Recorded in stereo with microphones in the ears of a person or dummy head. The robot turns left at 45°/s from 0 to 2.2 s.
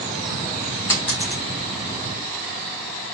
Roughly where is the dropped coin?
Left.